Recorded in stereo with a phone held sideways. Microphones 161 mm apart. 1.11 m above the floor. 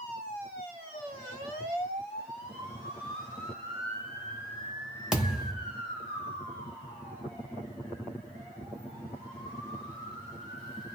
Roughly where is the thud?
Centre.